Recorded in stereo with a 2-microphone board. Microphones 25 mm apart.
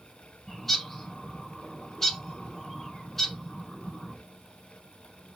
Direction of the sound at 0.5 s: 15° left (ahead or behind).